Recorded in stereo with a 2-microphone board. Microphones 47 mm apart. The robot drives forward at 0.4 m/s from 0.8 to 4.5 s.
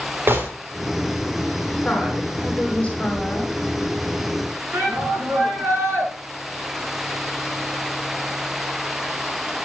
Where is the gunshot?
50° right (ahead or behind), 3 m.